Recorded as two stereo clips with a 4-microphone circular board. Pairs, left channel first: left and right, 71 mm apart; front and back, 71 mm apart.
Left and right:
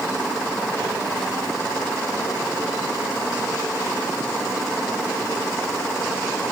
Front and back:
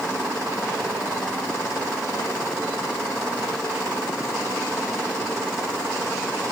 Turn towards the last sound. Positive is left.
No sound to turn to.